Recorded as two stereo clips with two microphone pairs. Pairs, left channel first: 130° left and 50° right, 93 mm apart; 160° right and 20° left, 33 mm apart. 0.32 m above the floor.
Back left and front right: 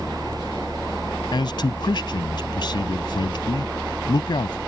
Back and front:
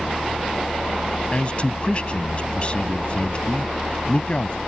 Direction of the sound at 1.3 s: 150° left.